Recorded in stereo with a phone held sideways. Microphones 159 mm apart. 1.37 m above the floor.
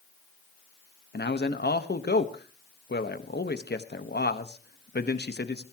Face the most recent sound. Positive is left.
turn(degrees=85)